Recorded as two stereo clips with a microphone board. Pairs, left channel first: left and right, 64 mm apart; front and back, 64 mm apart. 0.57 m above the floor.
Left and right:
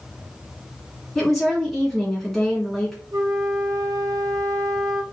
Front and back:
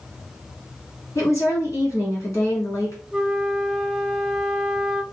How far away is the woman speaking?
About 1.6 m.